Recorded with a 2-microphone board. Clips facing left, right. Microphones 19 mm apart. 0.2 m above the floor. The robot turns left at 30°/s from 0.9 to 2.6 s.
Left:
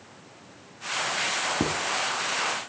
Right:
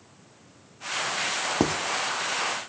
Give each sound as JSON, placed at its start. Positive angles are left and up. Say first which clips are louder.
{"t": 1.6, "sound": "writing", "louder": "right 6 dB", "side_deg": -40, "distance_m": 1.0}